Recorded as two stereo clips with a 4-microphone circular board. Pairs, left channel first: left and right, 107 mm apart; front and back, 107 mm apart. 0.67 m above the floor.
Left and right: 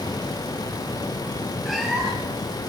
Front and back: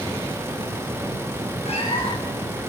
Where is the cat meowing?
Straight ahead, 5 m.